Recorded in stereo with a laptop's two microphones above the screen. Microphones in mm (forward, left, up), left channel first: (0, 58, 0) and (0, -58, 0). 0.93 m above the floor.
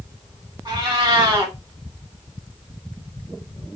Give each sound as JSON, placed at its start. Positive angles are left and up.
{"t": 0.7, "sound": "a cat meowing", "side_deg": -40, "distance_m": 1.2}